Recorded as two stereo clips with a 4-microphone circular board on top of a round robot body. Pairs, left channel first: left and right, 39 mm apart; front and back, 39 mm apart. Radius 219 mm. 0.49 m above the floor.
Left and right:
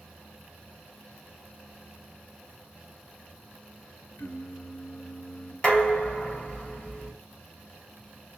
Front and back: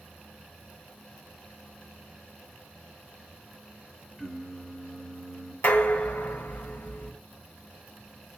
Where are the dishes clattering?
25° left, 2.5 m.